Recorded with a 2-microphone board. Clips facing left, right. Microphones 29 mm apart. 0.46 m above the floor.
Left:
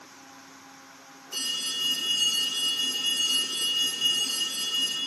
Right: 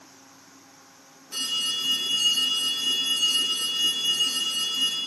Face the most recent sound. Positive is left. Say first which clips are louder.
# right 3 dB
turn(degrees=-85)